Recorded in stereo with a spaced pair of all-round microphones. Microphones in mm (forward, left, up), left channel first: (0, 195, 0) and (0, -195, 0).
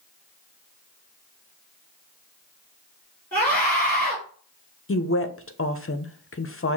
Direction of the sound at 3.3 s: 5° left (ahead or behind).